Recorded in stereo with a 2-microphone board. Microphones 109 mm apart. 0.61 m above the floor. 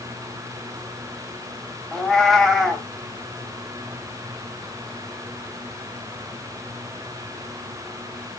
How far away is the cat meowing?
About 0.6 m.